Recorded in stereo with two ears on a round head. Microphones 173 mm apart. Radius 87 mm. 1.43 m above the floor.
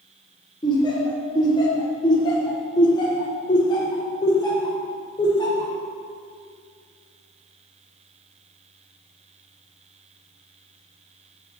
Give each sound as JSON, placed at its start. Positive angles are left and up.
{"t": 0.6, "sound": "laughter", "side_deg": 25, "distance_m": 1.0}